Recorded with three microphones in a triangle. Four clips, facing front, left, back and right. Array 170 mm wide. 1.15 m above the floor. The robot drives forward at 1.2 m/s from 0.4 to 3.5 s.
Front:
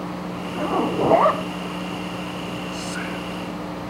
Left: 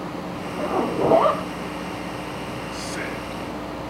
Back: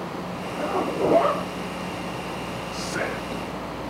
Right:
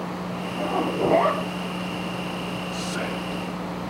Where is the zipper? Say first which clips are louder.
Left 2 dB, front 3 dB; 15° left, 3 m; by 1.4 s 25° left, 2 m.